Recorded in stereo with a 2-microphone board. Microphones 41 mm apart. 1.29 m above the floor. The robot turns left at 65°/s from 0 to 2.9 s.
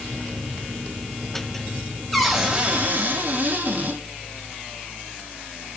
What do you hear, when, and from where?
2.1 s a cupboard door: straight ahead, 1.7 m; by 4.0 s 50° right, 1.7 m